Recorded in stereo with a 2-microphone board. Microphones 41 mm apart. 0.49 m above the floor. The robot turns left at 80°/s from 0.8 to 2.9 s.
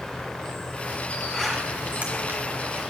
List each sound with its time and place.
0.0 s an insect: 160° left, 1.6 m; by 2.9 s 10° right, 1.6 m
1.3 s a zipper: 15° left (ahead or behind), 2.5 m; by 2.8 s 75° right (ahead or behind), 2.5 m